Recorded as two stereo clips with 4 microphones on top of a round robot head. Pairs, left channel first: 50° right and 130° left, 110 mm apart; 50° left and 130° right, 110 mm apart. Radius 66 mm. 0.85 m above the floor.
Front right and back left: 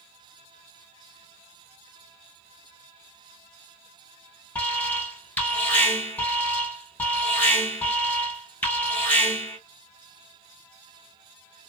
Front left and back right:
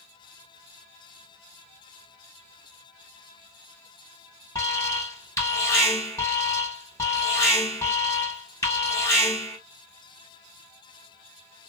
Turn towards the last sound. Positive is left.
turn(degrees=10)